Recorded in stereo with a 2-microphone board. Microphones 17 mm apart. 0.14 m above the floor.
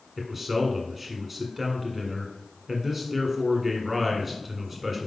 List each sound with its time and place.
0.2 s a man speaking: 10° right (ahead or behind), 1.3 m